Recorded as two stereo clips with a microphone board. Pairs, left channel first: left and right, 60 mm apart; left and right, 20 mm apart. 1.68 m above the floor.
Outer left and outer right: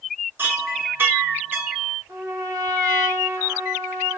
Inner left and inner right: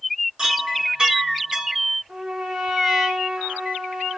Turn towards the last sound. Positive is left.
turn(degrees=-75)  # may be behind; listen again after turning